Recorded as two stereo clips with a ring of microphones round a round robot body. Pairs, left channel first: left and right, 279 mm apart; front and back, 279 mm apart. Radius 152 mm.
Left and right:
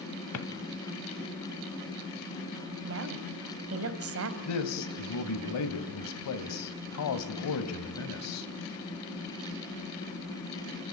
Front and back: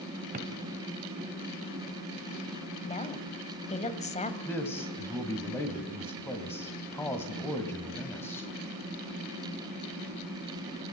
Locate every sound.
0.3 s a drawer: 115° left, 1.4 m
2.8 s a woman speaking: 65° right, 1.8 m
4.5 s a man speaking: 80° left, 2.0 m